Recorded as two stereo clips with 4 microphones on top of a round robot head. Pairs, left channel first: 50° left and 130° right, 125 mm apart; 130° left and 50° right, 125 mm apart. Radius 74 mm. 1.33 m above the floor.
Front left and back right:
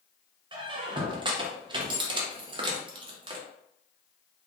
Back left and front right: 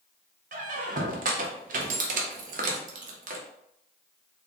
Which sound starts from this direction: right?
A squeak, at 0.5 s.